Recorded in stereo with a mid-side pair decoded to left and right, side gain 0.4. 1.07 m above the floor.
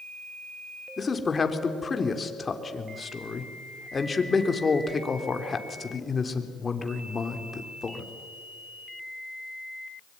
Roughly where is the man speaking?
Ahead left.